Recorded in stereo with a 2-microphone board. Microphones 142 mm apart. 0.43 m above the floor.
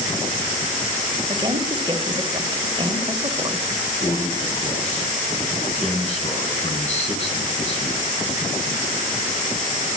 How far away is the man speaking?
About 4 m.